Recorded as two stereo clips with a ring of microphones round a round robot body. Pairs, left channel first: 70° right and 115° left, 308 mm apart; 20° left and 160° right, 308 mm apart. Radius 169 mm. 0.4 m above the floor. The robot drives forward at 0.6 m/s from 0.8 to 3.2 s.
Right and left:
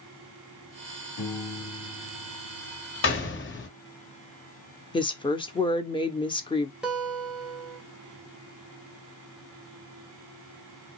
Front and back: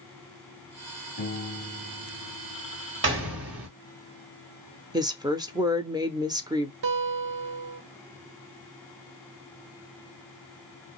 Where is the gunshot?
110° right, 1.6 m; by 3.7 s 115° right, 1.7 m.